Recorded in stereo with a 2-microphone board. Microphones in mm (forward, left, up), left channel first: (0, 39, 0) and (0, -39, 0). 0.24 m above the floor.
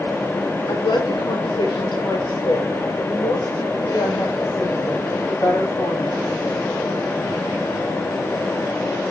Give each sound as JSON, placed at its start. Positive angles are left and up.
{"t": 0.7, "sound": "a woman speaking", "side_deg": 75, "distance_m": 4.0}